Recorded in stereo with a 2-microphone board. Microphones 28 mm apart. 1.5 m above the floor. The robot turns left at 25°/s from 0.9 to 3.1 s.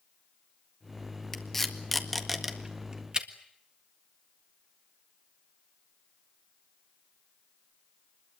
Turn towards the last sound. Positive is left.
turn(degrees=-30)  # may be behind; listen again after turning